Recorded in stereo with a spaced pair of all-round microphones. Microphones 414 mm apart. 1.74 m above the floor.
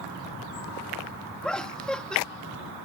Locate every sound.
1.4 s laughter: centre (ahead or behind)